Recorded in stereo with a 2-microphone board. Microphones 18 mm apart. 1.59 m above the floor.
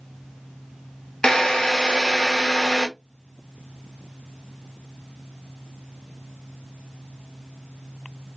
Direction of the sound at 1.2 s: 55° left (ahead or behind).